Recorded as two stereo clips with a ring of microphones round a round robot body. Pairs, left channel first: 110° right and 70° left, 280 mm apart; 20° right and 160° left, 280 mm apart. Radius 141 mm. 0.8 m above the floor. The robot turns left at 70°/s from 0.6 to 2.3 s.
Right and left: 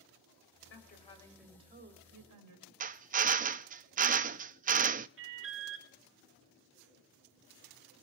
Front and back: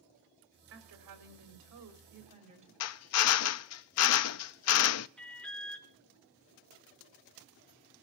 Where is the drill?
5° left, 0.5 m.